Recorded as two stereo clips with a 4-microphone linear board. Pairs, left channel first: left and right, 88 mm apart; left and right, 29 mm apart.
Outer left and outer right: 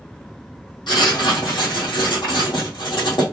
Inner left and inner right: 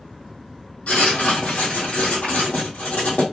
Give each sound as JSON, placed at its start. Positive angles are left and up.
{"t": 0.9, "sound": "writing", "side_deg": 70, "distance_m": 2.5}